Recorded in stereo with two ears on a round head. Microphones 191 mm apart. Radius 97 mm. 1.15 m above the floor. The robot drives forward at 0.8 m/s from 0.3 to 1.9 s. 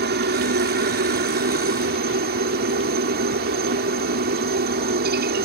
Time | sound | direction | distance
0.0 | a helicopter | 50° right (ahead or behind) | ?